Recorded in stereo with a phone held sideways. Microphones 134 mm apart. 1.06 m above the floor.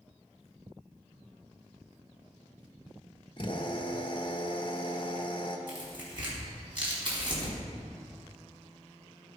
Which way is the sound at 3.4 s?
40° left (ahead or behind).